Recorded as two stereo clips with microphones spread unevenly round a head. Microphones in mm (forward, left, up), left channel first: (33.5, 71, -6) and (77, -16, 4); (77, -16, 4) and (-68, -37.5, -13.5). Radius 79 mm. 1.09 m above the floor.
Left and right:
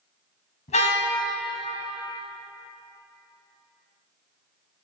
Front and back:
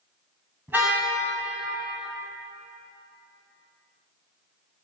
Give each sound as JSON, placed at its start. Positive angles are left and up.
{"t": 0.7, "sound": "a car horn", "azimuth_deg": 110, "distance_m": 4.5}